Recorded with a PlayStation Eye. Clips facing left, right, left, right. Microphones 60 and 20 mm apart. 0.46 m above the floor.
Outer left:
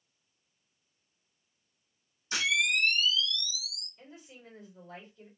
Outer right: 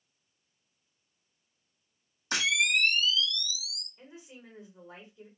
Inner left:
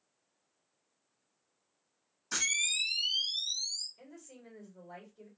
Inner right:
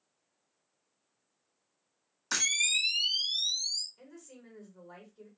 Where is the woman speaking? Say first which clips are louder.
Even, inner right 1 dB; 20° right (ahead or behind), 1.9 m.